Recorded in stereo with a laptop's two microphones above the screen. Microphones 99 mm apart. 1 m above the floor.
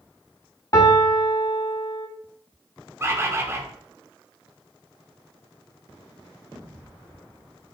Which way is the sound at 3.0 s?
25° right (ahead or behind).